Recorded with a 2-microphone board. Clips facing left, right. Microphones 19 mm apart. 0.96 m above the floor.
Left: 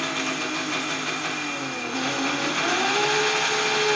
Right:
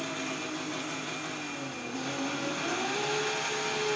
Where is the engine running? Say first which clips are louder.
Left 8 dB; 60° left (ahead or behind), 1.4 m.